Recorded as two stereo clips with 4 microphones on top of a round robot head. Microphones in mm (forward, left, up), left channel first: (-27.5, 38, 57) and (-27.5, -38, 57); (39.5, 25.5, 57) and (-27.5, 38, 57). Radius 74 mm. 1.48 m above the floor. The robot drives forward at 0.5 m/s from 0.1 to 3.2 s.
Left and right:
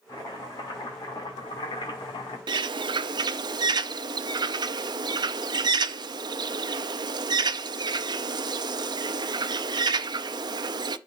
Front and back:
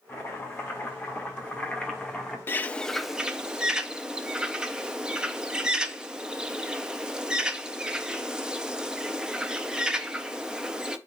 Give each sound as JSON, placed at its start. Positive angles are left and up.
{"t": 0.1, "sound": "chopping", "azimuth_deg": 45, "distance_m": 2.5}
{"t": 2.5, "sound": "a bird", "azimuth_deg": -70, "distance_m": 0.5}